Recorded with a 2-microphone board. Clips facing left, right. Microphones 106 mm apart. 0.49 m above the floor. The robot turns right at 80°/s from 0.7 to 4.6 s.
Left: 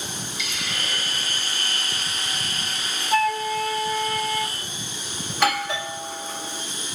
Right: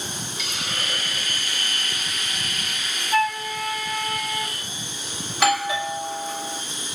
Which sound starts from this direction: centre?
A doorbell, at 5.3 s.